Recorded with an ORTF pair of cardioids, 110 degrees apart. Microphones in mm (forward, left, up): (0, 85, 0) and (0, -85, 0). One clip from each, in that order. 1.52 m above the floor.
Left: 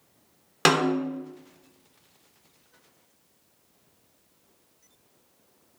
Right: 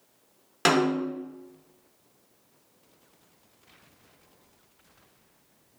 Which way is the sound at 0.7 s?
20° left.